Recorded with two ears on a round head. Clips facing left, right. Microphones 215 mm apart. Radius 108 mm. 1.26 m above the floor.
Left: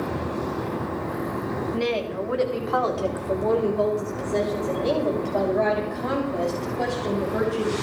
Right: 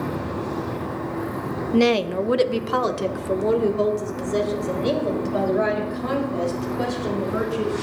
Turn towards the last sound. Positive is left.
turn(degrees=-10)  # may be behind; listen again after turning